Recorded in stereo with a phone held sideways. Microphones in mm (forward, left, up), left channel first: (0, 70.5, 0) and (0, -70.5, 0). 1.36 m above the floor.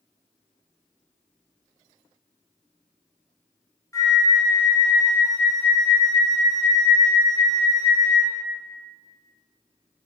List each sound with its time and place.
3.9 s a flute: 20° left (ahead or behind), 0.6 m